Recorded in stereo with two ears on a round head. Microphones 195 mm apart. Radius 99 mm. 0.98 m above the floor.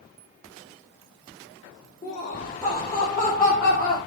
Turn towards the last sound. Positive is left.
turn(degrees=5)  # may be behind; listen again after turning